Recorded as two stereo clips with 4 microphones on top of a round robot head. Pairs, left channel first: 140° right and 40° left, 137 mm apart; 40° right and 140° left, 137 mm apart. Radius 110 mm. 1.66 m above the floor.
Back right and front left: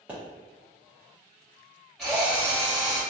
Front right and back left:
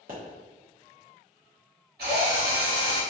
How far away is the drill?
About 1.8 m.